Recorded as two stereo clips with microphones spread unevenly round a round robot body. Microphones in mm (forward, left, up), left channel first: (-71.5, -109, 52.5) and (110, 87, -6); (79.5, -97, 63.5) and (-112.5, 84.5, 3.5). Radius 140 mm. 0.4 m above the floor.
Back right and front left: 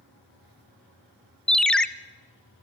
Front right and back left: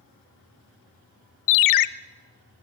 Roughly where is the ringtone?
Ahead right.